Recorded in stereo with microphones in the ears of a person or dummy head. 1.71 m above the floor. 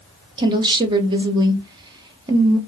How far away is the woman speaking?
About 0.8 m.